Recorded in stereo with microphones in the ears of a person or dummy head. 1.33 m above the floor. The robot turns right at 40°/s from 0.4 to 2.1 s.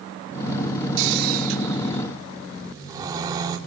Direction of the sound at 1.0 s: 65° right (ahead or behind).